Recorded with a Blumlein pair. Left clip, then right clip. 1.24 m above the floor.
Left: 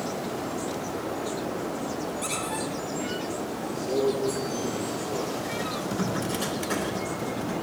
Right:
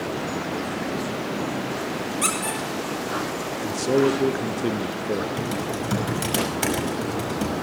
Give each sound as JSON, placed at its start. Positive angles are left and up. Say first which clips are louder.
{"t": 2.2, "sound": "a squeak", "louder": "right 8 dB", "azimuth_deg": -45, "distance_m": 6.0}
{"t": 3.6, "sound": "a man speaking", "louder": "right 6 dB", "azimuth_deg": -55, "distance_m": 0.8}
{"t": 5.4, "sound": "typing on a keyboard", "louder": "right 3 dB", "azimuth_deg": -40, "distance_m": 6.0}